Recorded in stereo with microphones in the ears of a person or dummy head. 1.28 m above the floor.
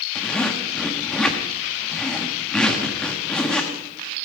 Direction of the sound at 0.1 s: 5° left (ahead or behind).